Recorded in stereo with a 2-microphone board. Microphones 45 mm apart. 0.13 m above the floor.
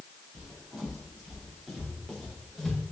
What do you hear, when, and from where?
0.3 s footsteps: 5° right (ahead or behind), 4 m; by 2.8 s 10° left (ahead or behind), 5 m